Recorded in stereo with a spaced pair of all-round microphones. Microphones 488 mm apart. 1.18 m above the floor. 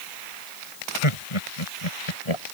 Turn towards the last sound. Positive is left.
turn(degrees=85)